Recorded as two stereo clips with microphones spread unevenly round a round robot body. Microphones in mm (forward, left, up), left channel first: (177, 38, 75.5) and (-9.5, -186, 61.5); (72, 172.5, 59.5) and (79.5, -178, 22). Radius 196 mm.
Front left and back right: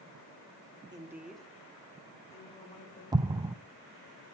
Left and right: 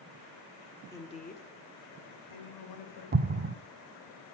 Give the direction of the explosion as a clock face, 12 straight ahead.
2 o'clock.